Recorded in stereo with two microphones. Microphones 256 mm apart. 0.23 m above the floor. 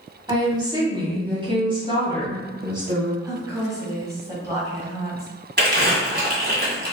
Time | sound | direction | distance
0.3 | a woman speaking | 15° right (ahead or behind) | 1.3 m
3.2 | a woman speaking | 10° right (ahead or behind) | 1.4 m
5.6 | crumpling | 40° right (ahead or behind) | 1.6 m